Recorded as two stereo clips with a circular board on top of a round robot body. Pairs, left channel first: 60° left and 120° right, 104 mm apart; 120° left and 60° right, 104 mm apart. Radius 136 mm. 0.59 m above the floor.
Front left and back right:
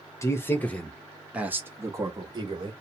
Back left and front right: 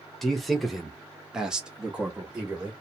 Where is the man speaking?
35° left, 1.1 m; by 2.7 s 135° right, 1.4 m.